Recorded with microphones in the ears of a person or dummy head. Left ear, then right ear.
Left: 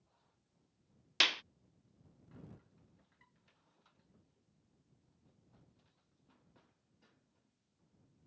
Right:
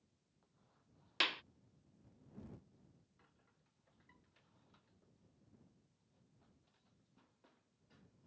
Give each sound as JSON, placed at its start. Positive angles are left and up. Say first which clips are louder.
{"t": 1.2, "sound": "a clap", "louder": "left 6 dB", "side_deg": 15}